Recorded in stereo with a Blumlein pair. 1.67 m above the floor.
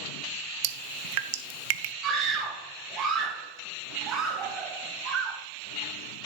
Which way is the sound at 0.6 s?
50° right.